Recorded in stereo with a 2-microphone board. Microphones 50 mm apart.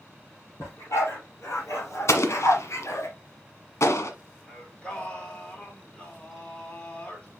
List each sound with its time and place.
0.6 s a dog barking: 85° left, 4 m; by 3.1 s 80° left, 2.5 m
2.1 s an explosion: 75° left (ahead or behind), 1.3 m
4.5 s singing: 20° left (ahead or behind), 3.5 m